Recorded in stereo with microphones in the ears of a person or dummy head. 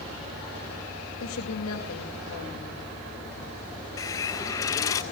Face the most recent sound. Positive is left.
turn(degrees=15)  # may be behind; listen again after turning